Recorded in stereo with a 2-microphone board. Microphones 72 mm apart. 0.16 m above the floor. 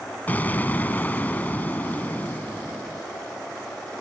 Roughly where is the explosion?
Left.